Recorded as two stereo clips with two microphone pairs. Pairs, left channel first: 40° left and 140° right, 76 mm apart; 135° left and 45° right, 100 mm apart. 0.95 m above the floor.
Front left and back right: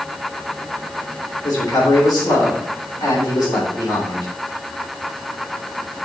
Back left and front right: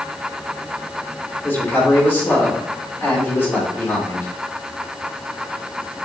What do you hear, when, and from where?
1.4 s a man speaking: 65° left, 3 m